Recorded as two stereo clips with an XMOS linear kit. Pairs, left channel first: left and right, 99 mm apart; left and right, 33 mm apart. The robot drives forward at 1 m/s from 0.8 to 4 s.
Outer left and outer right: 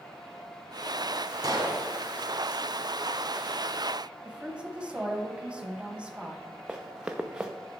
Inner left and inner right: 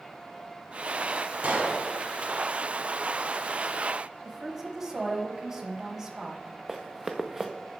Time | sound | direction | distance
1.4 | a gunshot | 40° right (ahead or behind) | 1.0 m
4.2 | a woman speaking | 10° right (ahead or behind) | 1.0 m
6.7 | running footsteps | 10° right (ahead or behind) | 0.8 m